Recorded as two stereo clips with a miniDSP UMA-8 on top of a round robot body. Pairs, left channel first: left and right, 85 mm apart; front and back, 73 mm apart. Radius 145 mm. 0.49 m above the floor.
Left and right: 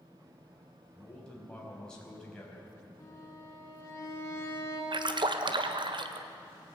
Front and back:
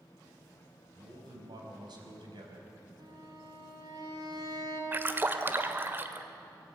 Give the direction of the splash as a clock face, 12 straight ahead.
4 o'clock.